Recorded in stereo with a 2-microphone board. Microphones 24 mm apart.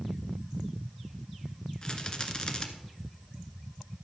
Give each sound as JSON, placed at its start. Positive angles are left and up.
{"t": 1.8, "sound": "a rattle", "side_deg": 35, "distance_m": 1.2}